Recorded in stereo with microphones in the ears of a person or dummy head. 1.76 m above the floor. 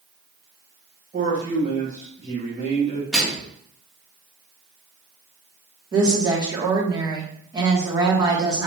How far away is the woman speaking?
About 1.0 m.